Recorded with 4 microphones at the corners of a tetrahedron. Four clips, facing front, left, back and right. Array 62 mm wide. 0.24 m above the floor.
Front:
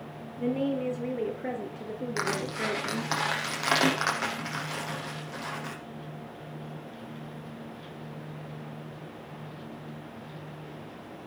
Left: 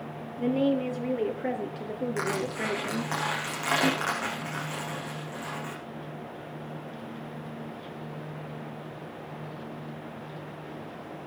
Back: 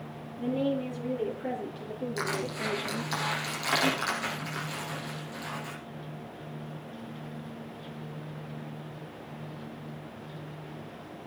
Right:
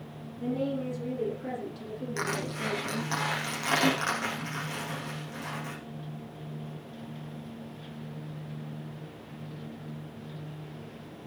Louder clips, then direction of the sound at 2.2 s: Left 1 dB, front 3 dB; 15° left.